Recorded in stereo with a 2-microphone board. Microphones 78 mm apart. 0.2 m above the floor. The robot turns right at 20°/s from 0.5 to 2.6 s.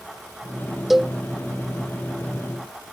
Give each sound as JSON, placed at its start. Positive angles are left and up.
{"t": 0.9, "sound": "a cowbell", "side_deg": 0}